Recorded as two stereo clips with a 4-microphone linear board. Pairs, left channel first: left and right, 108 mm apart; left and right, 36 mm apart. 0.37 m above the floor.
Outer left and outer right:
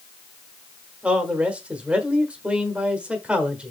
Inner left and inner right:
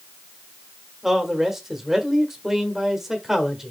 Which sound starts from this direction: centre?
A man speaking, at 1.0 s.